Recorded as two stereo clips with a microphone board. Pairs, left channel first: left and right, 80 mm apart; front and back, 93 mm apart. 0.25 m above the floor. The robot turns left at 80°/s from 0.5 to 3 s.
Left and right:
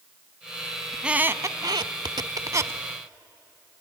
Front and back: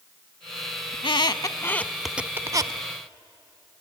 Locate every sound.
0.9 s a squeak: straight ahead, 0.5 m; by 2.8 s 150° right, 0.5 m